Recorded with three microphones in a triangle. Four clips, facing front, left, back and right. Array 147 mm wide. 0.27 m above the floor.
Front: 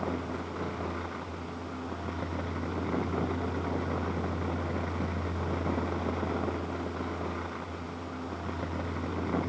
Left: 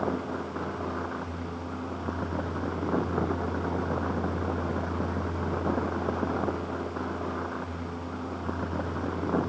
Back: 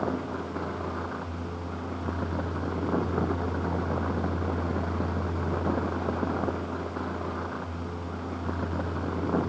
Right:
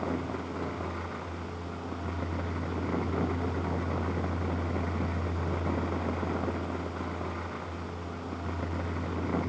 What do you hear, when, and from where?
Only background noise.